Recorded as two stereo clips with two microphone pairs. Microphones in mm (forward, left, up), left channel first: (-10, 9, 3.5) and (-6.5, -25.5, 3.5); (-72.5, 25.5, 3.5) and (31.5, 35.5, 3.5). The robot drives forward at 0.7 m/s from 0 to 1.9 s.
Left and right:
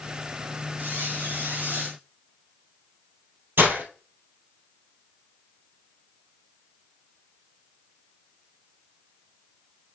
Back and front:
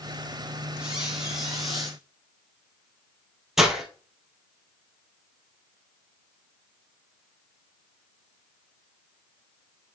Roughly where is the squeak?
Right.